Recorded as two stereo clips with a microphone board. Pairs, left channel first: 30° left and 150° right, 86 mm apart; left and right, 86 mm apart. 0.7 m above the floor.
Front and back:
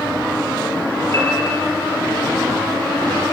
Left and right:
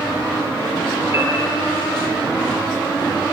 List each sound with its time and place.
1.1 s a piano: 25° right, 7 m